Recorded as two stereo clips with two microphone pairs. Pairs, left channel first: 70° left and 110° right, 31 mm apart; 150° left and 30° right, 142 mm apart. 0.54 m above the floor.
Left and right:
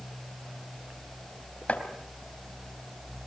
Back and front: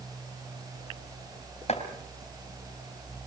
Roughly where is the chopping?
Left.